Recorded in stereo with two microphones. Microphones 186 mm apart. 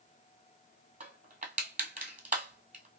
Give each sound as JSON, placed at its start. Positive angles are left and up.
{"t": 1.0, "sound": "crushing", "side_deg": -45, "distance_m": 1.3}